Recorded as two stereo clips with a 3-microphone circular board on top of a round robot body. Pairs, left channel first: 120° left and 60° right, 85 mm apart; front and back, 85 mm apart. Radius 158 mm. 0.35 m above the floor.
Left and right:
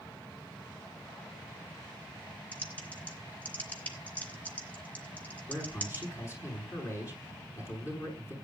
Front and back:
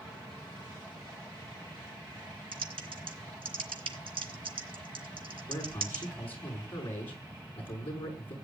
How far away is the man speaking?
About 6 m.